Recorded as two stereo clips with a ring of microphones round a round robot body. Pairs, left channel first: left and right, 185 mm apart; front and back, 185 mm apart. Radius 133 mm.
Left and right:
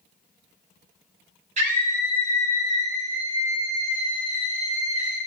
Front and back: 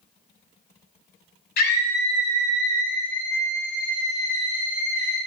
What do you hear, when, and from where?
1.6 s a scream: 35° right, 1.6 m; by 5.2 s 65° right, 5 m